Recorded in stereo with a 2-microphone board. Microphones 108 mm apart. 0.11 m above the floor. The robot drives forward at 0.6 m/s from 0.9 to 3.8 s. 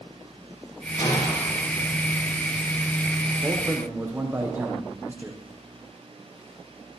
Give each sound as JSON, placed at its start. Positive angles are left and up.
{"t": 1.0, "sound": "a gunshot", "side_deg": 45, "distance_m": 7.0}
{"t": 3.4, "sound": "a man speaking", "side_deg": -20, "distance_m": 4.5}